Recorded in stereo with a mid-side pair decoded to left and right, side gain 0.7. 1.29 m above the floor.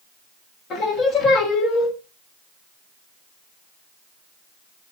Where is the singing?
45° left, 1.2 m.